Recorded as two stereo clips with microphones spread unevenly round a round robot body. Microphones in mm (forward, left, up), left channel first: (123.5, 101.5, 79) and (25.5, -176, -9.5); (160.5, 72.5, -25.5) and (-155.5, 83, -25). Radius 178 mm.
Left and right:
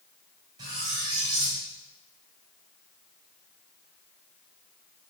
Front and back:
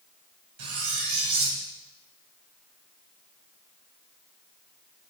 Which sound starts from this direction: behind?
Cutlery clinking, at 0.6 s.